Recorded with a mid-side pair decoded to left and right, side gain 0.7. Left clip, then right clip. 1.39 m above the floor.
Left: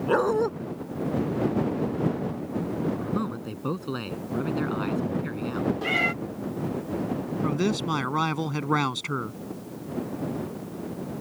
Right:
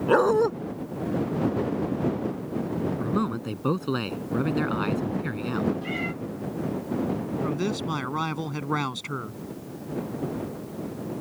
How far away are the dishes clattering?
I don't hear dishes clattering.